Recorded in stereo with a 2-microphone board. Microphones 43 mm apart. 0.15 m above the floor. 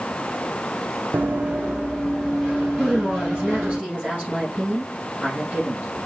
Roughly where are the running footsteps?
Right.